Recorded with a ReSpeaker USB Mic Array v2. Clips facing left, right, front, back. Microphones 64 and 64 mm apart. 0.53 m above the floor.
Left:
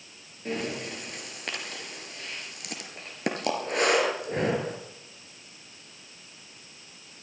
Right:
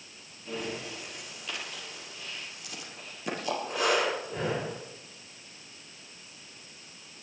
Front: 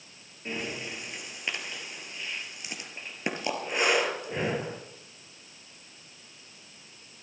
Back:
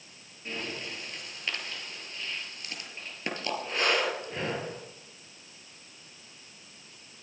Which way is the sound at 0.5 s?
70° left.